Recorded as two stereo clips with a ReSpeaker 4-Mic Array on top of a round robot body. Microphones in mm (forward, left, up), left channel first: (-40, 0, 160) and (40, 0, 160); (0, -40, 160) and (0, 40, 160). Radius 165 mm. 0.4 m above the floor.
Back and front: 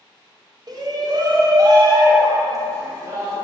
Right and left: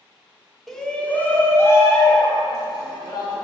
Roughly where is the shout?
Ahead.